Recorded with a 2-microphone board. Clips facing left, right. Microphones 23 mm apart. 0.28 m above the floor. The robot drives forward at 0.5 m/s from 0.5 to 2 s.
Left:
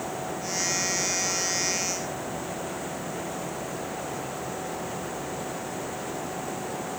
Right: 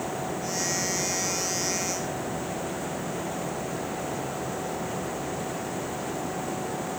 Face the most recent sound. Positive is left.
No sound to turn to.